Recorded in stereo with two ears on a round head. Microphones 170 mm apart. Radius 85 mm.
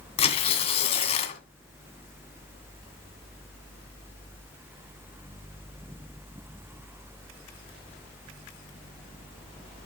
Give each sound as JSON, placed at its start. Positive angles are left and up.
{"t": 0.2, "sound": "tearing paper", "side_deg": 35, "distance_m": 1.8}